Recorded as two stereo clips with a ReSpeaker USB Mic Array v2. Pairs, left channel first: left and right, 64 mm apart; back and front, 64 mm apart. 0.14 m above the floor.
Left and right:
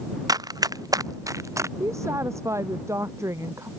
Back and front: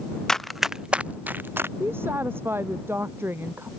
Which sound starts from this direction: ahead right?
A woman speaking, at 1.8 s.